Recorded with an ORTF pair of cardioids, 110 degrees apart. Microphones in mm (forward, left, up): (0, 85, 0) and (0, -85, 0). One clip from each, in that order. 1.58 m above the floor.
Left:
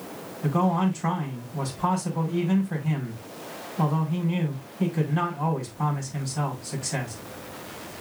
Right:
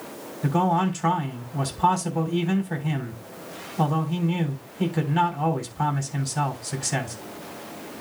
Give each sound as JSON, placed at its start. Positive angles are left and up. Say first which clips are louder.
{"t": 0.4, "sound": "a man speaking", "louder": "right 3 dB", "azimuth_deg": -40, "distance_m": 5.0}